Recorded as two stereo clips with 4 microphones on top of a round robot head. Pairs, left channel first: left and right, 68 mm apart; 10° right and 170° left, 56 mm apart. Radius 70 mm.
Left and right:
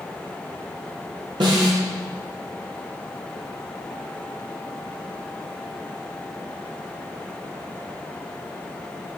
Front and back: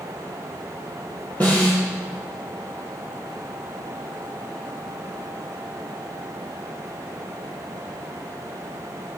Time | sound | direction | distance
1.4 | a snare drum | 75° right | 4.5 m